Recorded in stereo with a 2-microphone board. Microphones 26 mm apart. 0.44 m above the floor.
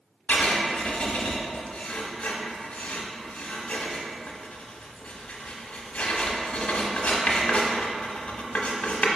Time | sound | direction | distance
0.3 | writing | 65° left (ahead or behind) | 0.6 m